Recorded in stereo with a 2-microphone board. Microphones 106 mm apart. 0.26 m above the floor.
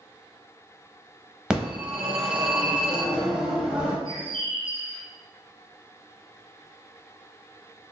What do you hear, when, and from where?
1.5 s a phone ringing: 10° right (ahead or behind), 0.7 m
4.0 s a bird: 60° right (ahead or behind), 1.5 m